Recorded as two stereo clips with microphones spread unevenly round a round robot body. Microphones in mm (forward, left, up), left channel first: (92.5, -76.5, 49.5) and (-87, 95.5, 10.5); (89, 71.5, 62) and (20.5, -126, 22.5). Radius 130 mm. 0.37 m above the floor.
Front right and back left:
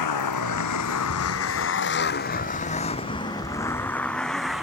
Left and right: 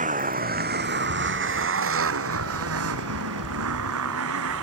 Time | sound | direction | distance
0.0 | a motorcycle | 55° right | ?